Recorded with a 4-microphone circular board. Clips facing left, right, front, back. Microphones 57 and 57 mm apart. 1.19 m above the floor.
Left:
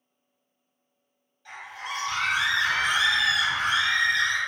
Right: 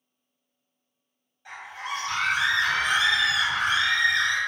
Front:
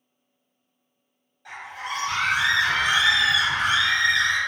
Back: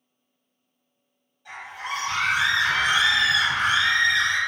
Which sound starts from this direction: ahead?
A scream, at 1.4 s.